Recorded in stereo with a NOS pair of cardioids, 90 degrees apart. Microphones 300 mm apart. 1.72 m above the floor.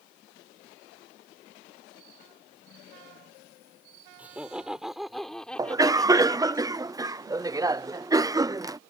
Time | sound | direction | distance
4.2 | laughter | 5° right | ?
5.6 | a cough | 10° right | ?